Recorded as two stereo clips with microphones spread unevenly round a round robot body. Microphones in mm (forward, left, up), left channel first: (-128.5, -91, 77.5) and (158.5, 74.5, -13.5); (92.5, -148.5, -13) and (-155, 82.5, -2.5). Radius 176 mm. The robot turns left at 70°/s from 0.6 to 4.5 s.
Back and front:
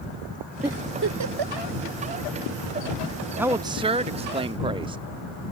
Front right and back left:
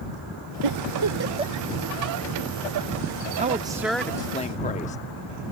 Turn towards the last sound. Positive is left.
turn(degrees=5)